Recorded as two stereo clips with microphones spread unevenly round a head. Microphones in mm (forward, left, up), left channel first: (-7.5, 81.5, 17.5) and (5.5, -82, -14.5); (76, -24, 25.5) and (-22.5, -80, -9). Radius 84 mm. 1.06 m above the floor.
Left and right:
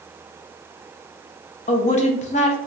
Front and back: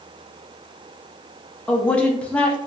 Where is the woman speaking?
130° left, 0.5 m.